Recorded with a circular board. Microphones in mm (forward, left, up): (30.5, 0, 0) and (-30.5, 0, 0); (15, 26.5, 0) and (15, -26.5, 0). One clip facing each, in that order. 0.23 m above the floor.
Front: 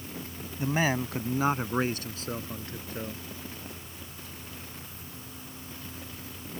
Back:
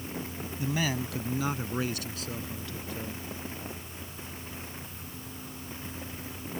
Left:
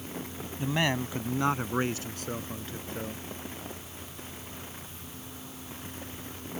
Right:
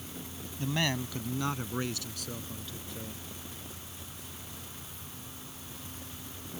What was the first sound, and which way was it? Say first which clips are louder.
A man speaking: front 4 dB, left 3 dB; 25° left.